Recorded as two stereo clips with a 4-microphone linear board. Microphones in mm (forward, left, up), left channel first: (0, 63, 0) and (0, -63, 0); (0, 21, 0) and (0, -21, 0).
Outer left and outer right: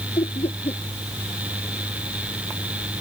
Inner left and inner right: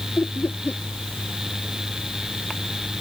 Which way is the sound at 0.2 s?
55° left (ahead or behind).